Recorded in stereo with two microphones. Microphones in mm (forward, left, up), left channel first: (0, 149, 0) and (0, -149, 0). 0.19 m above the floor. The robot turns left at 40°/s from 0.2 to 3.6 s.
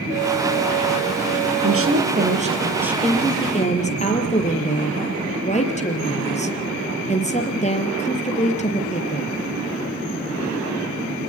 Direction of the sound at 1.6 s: 125° right.